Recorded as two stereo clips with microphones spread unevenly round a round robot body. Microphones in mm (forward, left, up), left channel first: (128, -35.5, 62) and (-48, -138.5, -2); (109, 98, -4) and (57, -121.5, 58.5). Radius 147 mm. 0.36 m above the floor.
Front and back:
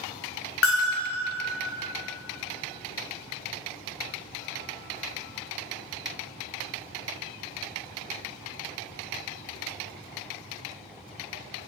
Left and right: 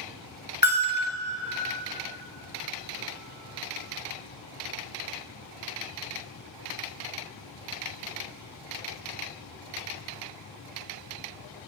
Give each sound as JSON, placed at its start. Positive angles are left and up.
{"t": 0.6, "sound": "a bell", "azimuth_deg": 30, "distance_m": 1.1}